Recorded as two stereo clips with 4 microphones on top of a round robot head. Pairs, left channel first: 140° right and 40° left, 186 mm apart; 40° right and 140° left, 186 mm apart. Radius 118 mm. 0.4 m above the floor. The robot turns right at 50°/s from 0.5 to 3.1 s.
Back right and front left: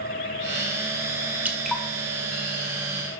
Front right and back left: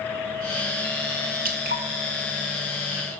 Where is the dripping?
120° left, 1.9 m; by 1.8 s 140° left, 1.9 m.